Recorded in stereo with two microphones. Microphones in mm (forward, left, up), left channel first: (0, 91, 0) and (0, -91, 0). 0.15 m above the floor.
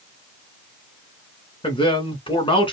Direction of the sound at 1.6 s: 30° left (ahead or behind).